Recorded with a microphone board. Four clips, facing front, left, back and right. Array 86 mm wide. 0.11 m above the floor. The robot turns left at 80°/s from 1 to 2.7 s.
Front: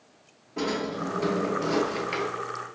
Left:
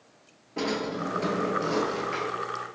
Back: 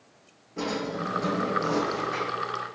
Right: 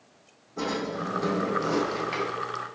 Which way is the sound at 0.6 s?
70° left.